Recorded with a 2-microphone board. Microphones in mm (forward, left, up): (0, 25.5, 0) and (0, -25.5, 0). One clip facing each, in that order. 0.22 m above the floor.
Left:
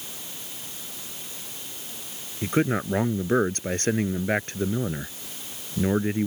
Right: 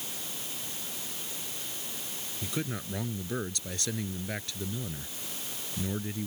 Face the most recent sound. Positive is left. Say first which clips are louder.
# left 12 dB
turn(degrees=50)  # may be behind; listen again after turning